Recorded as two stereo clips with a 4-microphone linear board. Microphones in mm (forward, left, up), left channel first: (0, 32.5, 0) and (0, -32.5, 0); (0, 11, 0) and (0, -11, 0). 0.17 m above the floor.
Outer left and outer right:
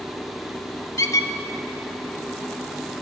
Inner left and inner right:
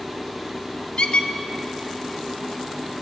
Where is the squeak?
60° left (ahead or behind), 0.5 m.